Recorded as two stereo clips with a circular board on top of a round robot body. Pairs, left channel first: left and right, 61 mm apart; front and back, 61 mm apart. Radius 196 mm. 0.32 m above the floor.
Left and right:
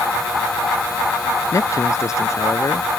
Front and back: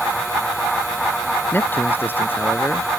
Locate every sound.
1.5 s a man speaking: 55° left